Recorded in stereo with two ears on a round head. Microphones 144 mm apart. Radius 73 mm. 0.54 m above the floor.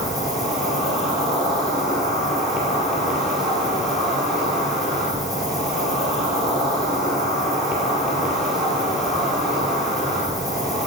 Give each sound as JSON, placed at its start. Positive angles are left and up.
{"t": 0.0, "sound": "an insect", "side_deg": 0, "distance_m": 4.5}